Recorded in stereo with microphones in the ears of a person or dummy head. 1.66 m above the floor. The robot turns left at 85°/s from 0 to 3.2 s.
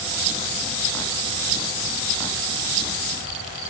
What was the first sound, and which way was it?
Only background noise.